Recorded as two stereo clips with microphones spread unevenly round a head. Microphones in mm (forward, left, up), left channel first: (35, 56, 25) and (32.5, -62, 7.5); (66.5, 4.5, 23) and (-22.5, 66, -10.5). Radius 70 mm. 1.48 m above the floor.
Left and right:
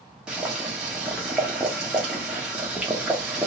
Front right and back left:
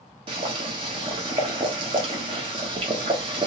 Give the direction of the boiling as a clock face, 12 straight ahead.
6 o'clock.